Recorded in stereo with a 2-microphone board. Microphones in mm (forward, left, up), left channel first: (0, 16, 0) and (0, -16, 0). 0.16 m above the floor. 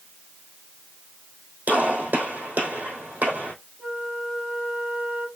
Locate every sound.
1.7 s a gunshot: 80° right, 3 m
3.8 s a flute: 60° right (ahead or behind), 3.5 m